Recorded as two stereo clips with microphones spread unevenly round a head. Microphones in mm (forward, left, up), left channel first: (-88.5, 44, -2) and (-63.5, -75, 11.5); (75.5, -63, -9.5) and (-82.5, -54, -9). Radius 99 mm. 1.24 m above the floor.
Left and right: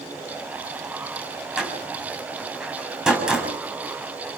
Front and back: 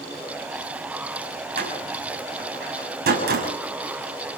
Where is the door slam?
160° right, 7 m.